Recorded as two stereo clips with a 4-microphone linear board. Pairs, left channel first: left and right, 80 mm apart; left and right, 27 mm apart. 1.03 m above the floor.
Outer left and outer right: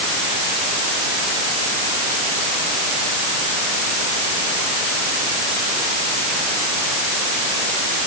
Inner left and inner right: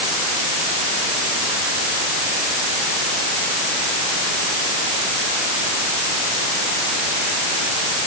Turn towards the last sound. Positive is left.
No sound to turn to.